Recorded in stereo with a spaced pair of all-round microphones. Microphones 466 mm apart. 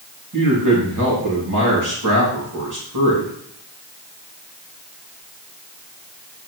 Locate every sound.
0.3 s a man speaking: 40° right (ahead or behind), 2.5 m